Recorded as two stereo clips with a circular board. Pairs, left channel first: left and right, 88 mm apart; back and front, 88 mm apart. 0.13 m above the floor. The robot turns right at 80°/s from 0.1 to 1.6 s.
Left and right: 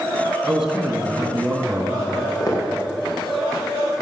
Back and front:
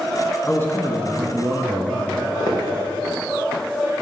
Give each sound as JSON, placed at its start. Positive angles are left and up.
{"t": 0.5, "sound": "a man speaking", "azimuth_deg": 175, "distance_m": 1.2}
{"t": 2.1, "sound": "footsteps", "azimuth_deg": 135, "distance_m": 3.5}